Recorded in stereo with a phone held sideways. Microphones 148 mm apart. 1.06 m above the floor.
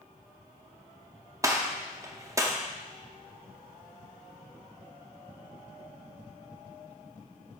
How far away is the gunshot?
About 0.7 m.